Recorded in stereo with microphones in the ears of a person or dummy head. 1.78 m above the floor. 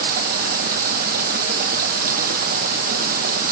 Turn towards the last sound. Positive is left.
turn(degrees=-50)  # may be behind; listen again after turning